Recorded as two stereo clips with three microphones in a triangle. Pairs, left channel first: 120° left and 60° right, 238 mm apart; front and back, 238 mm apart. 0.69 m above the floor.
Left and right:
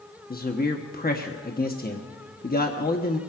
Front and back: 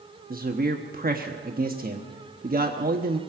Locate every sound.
0.3 s a man speaking: 150° left, 1.1 m